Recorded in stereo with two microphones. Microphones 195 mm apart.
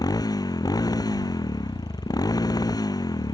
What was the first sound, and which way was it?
A motorcycle, 20° left (ahead or behind).